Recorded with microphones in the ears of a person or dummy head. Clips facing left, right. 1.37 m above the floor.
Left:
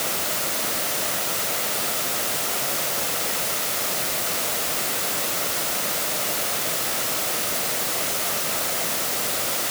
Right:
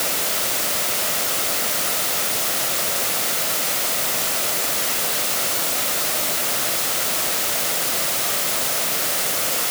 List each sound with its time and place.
Only background noise.